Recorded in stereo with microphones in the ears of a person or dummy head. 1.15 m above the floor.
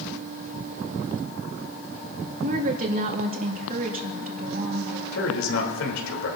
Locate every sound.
2.4 s a woman speaking: 45° right (ahead or behind), 2 m
5.1 s a man speaking: 85° left, 3.5 m